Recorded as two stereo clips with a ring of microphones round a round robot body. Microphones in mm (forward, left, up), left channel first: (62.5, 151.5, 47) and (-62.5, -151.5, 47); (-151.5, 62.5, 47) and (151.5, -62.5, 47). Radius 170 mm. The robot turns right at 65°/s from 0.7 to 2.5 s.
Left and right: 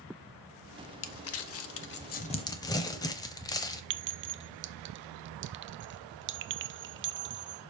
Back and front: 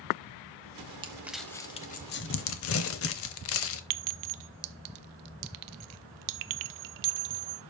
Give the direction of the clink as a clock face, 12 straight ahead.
2 o'clock.